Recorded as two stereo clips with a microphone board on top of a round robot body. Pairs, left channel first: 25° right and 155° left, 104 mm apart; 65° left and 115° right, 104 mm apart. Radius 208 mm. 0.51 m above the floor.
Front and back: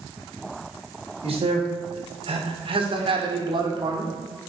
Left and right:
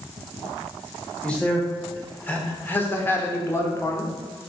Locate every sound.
1.2 s a man speaking: 145° left, 3.5 m; by 4.1 s 125° left, 2.5 m